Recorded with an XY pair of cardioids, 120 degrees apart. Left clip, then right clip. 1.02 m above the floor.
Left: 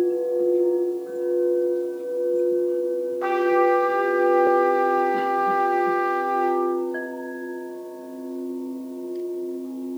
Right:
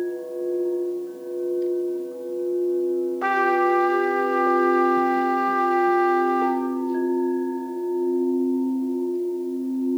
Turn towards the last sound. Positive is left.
turn(degrees=-30)